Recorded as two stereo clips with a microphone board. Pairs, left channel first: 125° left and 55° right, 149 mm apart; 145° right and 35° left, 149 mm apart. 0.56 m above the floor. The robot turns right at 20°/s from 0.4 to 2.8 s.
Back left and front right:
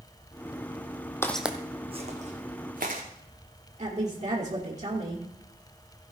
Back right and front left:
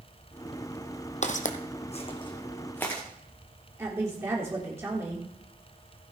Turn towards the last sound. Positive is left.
turn(degrees=-35)